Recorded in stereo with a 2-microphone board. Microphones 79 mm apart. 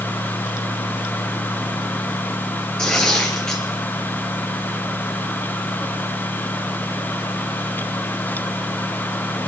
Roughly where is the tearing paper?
Centre.